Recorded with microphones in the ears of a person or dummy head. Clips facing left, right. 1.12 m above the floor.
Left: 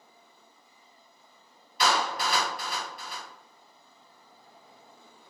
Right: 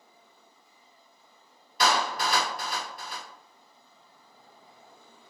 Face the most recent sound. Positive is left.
turn(degrees=-40)  # may be behind; listen again after turning